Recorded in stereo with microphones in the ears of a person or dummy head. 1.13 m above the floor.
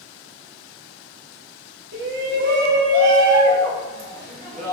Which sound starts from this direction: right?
A shout, at 1.9 s.